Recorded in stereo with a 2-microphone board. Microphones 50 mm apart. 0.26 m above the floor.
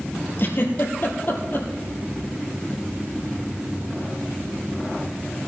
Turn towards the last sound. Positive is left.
turn(degrees=50)  # may be behind; listen again after turning